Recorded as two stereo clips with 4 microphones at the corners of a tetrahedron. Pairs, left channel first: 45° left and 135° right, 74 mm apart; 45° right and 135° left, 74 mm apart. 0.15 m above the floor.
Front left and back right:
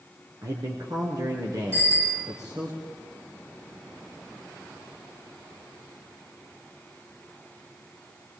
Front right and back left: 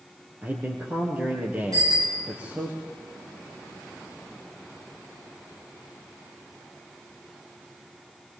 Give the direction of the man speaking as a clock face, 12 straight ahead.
5 o'clock.